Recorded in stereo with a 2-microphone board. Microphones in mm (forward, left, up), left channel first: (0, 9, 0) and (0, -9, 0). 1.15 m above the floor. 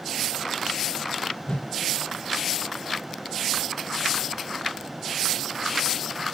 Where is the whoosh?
60° left (ahead or behind), 1.1 m.